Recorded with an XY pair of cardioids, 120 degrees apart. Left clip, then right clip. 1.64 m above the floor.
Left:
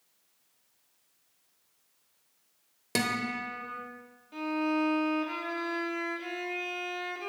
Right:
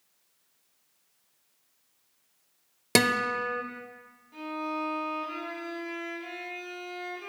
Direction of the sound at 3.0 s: 50° right.